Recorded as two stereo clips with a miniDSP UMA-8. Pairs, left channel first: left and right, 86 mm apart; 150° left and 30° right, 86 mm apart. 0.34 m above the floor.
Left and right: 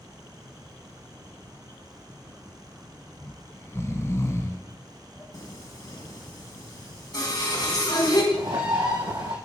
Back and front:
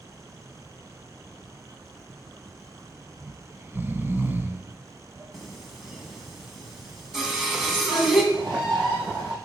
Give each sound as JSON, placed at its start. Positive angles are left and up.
{"t": 3.2, "sound": "snoring", "azimuth_deg": 35, "distance_m": 1.0}
{"t": 5.3, "sound": "singing", "azimuth_deg": 55, "distance_m": 2.0}
{"t": 8.3, "sound": "a bird", "azimuth_deg": -55, "distance_m": 6.0}